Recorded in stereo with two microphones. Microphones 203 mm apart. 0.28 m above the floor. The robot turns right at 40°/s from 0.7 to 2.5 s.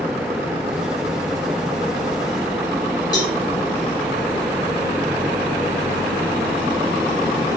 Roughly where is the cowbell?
Centre.